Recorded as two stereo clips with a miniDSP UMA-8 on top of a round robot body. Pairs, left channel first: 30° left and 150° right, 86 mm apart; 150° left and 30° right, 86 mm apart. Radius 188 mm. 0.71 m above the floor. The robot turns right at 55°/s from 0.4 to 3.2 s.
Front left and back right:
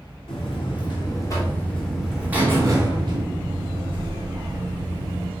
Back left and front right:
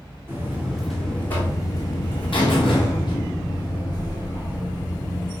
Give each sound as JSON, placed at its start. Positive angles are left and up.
{"t": 0.3, "sound": "a buzzer", "azimuth_deg": 35, "distance_m": 3.0}